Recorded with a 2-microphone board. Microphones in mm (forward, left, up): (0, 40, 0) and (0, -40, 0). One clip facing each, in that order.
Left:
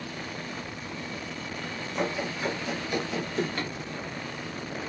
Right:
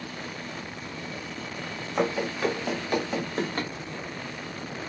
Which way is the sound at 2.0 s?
85° right.